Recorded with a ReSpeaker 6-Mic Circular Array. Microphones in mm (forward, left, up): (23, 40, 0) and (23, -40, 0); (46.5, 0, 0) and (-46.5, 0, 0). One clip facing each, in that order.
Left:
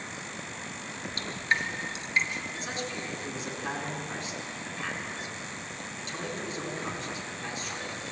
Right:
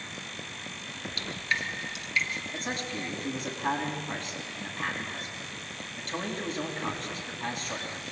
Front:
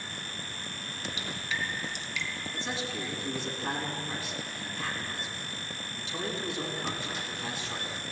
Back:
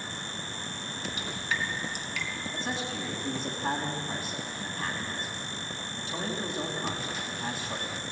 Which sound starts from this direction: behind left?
Dripping, at 1.2 s.